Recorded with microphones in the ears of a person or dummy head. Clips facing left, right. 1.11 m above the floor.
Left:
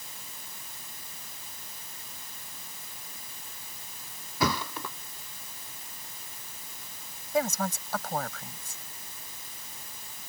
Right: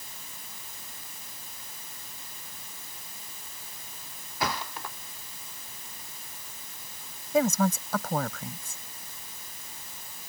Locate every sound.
4.4 s a thud: 80° left
7.3 s a woman speaking: 70° right (ahead or behind)